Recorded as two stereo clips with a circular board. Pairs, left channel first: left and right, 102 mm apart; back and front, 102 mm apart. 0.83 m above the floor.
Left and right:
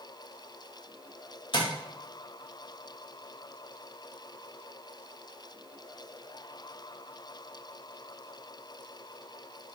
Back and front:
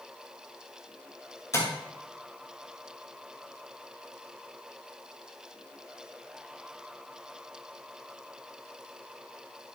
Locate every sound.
1.5 s tapping: 120° left, 2.5 m